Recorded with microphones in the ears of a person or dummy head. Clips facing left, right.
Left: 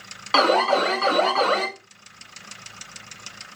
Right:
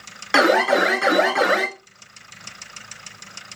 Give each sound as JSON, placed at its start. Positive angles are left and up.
{"t": 0.3, "sound": "an alarm", "side_deg": -5, "distance_m": 1.9}